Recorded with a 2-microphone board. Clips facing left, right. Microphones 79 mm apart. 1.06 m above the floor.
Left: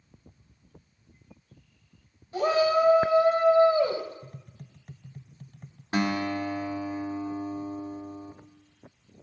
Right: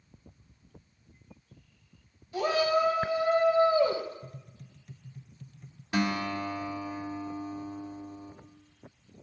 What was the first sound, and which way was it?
A shout, 35° left (ahead or behind).